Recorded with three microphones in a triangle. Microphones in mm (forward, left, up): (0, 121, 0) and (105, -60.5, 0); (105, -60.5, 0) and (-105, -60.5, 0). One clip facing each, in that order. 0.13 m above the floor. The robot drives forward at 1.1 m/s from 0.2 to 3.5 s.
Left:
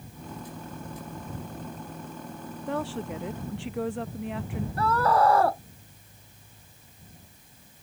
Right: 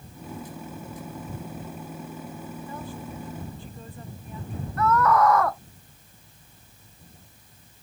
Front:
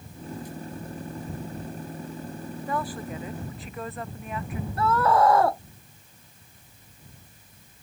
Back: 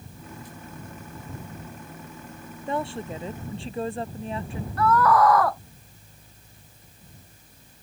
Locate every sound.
2.7 s a woman speaking: 115° left; by 4.7 s 120° left
4.8 s a scream: 60° left